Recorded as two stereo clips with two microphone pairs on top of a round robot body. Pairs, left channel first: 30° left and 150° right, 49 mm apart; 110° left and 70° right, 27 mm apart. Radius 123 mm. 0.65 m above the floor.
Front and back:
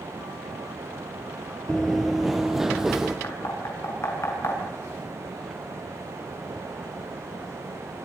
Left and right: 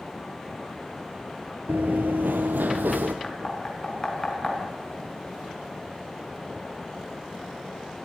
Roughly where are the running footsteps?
Ahead right.